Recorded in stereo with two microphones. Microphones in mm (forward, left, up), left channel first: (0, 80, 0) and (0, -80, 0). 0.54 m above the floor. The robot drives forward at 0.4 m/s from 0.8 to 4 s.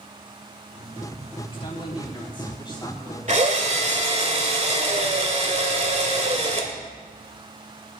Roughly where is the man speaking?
Left.